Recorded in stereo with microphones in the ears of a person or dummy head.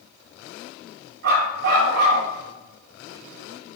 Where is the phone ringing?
No phone ringing in this recording.